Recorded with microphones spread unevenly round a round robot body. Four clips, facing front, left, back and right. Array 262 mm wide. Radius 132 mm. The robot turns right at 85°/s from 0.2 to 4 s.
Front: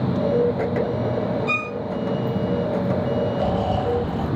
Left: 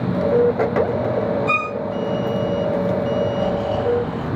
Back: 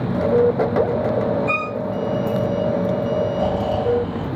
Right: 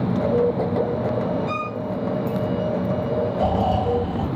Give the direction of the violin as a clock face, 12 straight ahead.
9 o'clock.